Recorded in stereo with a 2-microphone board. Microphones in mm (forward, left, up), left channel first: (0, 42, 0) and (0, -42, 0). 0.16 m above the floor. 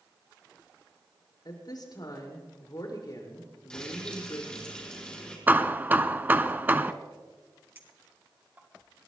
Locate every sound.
1.4 s a woman speaking: 55° left (ahead or behind), 5.5 m
3.7 s frying: 10° left (ahead or behind), 5 m
5.5 s hammering: 20° right (ahead or behind), 0.7 m
7.8 s a clink: 25° right (ahead or behind), 2 m